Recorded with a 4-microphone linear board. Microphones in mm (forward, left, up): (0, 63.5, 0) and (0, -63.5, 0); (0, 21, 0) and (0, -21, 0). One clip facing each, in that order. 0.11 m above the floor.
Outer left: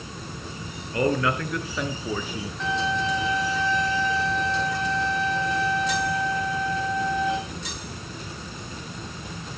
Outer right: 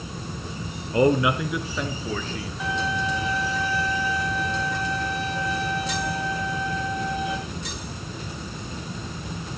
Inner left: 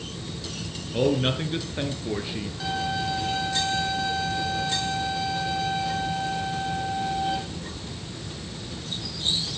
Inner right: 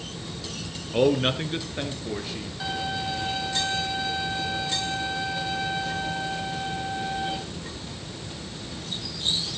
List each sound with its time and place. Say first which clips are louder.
0.9 s a man speaking: outer right 4 dB, inner right 2 dB; 25° right (ahead or behind), 1.9 m; by 2.5 s 15° left (ahead or behind), 2.5 m
2.6 s a violin: outer left 1 dB, inner left 2 dB; 10° right (ahead or behind), 5 m